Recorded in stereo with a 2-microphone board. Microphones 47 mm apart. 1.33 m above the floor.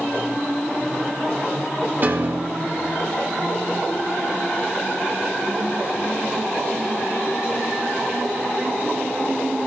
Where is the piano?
40° right (ahead or behind), 0.8 m.